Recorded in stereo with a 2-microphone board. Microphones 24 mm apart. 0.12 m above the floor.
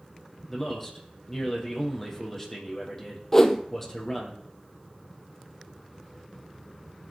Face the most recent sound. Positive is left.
turn(degrees=20)  # may be behind; listen again after turning